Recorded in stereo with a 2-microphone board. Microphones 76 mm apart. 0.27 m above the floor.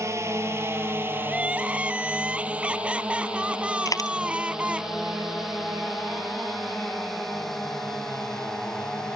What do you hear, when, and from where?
0.0 s a drone: 40° right (ahead or behind); by 9.2 s 10° left (ahead or behind)
1.3 s crying: 15° right (ahead or behind)
3.9 s a dropped coin: 50° left (ahead or behind)